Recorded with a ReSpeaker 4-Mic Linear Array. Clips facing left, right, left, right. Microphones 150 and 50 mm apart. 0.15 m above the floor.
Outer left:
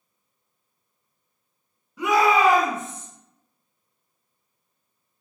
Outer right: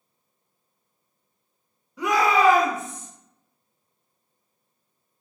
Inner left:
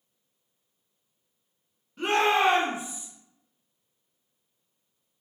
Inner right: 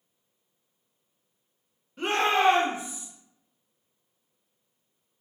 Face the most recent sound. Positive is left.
turn(degrees=30)  # may be behind; listen again after turning